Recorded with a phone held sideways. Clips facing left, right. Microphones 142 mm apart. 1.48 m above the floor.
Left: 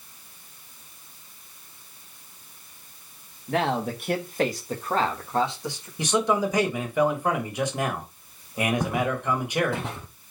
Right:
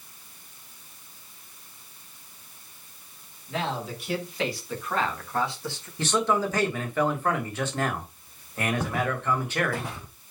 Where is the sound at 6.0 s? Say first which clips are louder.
Left 2 dB; 15° left (ahead or behind), 1.8 m.